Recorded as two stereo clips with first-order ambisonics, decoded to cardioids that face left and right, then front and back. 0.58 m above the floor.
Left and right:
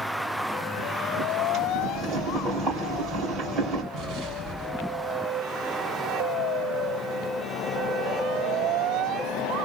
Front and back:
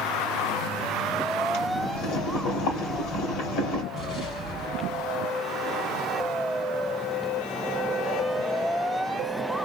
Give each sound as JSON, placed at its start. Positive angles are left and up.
{"t": 1.5, "sound": "boiling", "azimuth_deg": -25, "distance_m": 2.5}
{"t": 3.9, "sound": "an explosion", "azimuth_deg": -55, "distance_m": 1.7}